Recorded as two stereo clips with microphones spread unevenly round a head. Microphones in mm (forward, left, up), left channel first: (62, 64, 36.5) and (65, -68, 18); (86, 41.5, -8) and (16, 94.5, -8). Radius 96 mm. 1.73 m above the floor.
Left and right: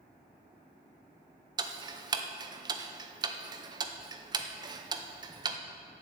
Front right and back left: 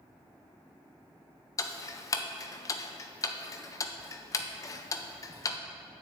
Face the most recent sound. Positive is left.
turn(degrees=-40)